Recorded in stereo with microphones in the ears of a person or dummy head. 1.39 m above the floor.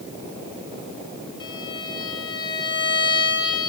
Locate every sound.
1.4 s a violin: 25° left (ahead or behind), 3 m